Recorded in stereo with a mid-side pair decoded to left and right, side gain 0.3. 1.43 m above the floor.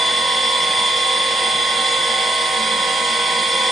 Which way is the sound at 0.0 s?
60° right.